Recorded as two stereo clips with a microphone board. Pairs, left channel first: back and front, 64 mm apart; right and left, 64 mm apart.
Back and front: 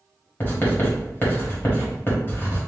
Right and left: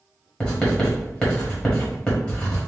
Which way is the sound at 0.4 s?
155° right.